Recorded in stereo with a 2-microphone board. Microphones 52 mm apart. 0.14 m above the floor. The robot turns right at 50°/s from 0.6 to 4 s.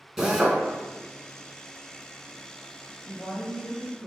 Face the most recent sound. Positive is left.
turn(degrees=-140)